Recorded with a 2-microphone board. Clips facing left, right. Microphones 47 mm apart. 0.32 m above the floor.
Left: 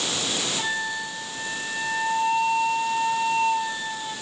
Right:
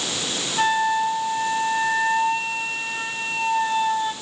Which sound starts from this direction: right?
A flute, at 0.6 s.